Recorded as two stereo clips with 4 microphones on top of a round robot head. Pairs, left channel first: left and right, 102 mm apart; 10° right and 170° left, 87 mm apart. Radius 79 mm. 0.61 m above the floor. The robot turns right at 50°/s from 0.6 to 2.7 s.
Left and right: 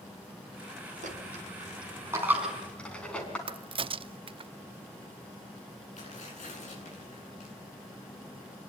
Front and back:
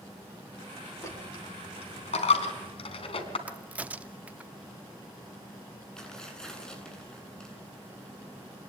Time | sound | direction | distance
1.0 | a dropped coin | 75° right | 3.5 m
3.5 | a crack | 115° right | 0.7 m
6.0 | tearing paper | 75° left | 9 m